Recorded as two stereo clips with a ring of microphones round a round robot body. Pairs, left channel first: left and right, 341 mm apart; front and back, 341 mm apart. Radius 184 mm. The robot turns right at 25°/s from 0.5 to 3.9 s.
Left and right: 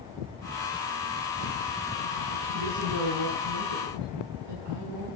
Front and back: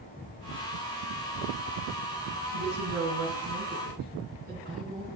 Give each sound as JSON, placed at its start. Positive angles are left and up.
{"t": 2.5, "sound": "a woman speaking", "azimuth_deg": -150, "distance_m": 10.0}